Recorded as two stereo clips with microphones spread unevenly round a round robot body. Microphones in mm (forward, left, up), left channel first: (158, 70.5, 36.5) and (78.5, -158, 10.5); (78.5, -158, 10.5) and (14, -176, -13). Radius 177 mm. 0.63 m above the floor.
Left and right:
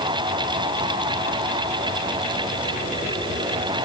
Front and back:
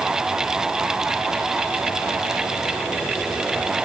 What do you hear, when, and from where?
Only background noise.